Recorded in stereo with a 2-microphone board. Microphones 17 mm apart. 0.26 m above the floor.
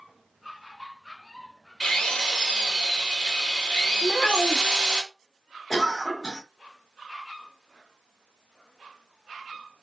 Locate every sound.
1.8 s a drill: 60° left (ahead or behind), 2 m
4.0 s a child speaking: 55° left (ahead or behind), 0.9 m
5.7 s a cough: 30° left (ahead or behind), 1.7 m